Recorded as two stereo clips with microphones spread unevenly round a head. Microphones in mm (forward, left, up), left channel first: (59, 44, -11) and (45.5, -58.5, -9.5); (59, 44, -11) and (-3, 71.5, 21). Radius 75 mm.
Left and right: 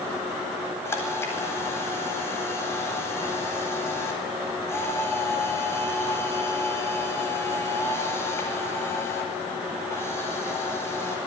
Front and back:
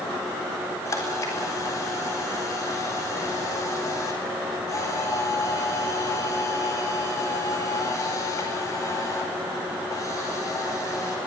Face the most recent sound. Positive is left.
turn(degrees=15)